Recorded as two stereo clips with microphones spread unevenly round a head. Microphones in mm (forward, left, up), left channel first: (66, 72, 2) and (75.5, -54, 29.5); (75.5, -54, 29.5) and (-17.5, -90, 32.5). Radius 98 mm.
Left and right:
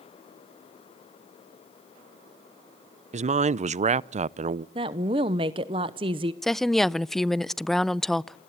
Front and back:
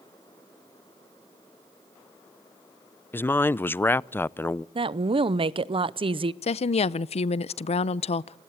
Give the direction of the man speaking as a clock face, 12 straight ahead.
2 o'clock.